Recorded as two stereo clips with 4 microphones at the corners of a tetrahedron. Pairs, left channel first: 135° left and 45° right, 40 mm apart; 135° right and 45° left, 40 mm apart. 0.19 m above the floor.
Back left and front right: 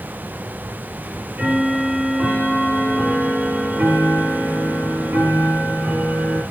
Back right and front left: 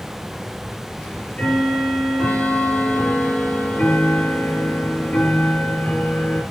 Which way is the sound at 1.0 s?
85° right.